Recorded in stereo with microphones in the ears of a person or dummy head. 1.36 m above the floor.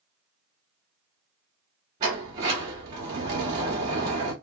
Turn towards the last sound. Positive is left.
turn(degrees=-20)  # may be behind; listen again after turning